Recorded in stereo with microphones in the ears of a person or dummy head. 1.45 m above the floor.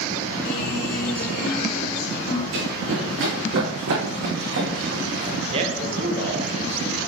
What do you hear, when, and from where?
0.5 s a guitar: 55° left (ahead or behind), 2.5 m
2.5 s running footsteps: 60° right (ahead or behind), 3.5 m; by 5.4 s 55° right (ahead or behind), 4 m
5.5 s a man speaking: 40° right (ahead or behind), 1.1 m